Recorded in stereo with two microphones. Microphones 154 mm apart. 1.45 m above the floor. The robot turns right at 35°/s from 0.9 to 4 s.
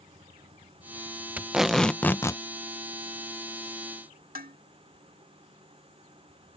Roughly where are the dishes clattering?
Right.